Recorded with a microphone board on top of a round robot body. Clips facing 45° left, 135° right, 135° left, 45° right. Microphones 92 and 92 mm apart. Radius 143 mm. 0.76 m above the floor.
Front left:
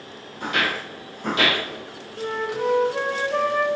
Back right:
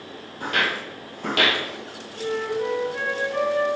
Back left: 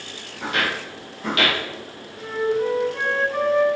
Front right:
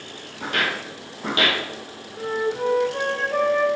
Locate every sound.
0.4 s footsteps: 85° right, 1.8 m; by 1.6 s 110° right, 1.7 m
2.2 s a flute: 5° left, 1.0 m